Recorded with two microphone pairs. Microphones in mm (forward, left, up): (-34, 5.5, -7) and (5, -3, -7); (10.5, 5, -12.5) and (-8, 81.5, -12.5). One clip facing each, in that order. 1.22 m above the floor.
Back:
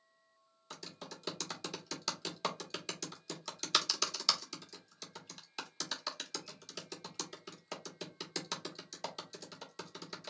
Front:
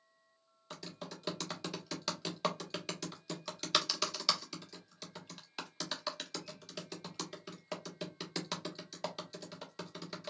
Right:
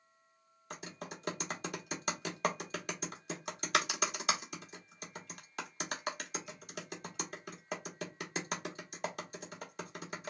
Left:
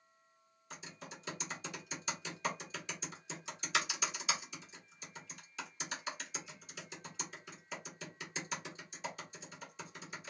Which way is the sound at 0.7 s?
95° right.